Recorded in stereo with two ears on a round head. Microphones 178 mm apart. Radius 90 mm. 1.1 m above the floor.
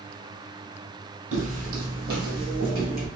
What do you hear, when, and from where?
1.3 s footsteps: 40° right (ahead or behind), 1.6 m; by 3.1 s 50° right (ahead or behind), 2.5 m